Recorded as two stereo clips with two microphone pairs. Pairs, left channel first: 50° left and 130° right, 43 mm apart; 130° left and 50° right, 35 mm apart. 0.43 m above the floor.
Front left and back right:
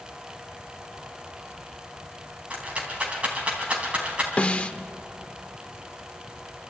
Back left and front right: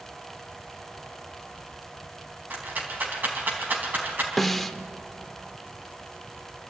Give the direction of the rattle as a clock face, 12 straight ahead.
2 o'clock.